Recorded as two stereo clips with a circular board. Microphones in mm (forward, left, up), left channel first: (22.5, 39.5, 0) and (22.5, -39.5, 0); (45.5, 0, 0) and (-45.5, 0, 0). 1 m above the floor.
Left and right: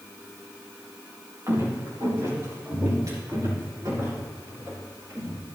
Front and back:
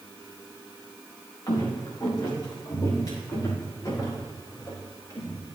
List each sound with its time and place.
1.5 s footsteps: 45° right, 4.5 m; by 5.4 s 50° right, 8 m